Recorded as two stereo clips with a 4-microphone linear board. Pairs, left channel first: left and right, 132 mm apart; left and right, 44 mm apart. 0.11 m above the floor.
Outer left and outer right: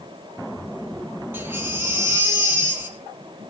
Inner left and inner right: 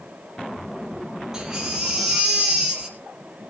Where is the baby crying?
15° right (ahead or behind), 3 m.